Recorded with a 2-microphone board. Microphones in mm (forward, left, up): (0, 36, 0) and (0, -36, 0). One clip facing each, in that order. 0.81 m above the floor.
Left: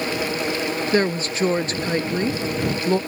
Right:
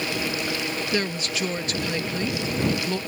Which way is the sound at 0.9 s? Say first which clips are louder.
Left 8 dB; 35° left (ahead or behind).